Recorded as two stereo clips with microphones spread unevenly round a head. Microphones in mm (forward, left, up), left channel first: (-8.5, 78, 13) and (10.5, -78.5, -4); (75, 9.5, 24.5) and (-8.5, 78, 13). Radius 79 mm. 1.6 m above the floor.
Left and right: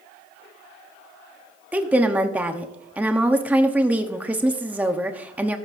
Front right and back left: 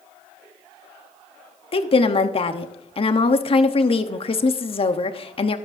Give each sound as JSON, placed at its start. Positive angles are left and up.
{"t": 1.7, "sound": "a woman speaking", "azimuth_deg": 0, "distance_m": 1.0}